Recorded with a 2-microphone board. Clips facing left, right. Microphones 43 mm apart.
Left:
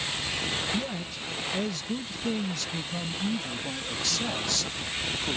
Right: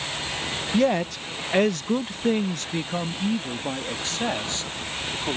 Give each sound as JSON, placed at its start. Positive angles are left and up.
{"t": 0.7, "sound": "a man speaking", "side_deg": -80}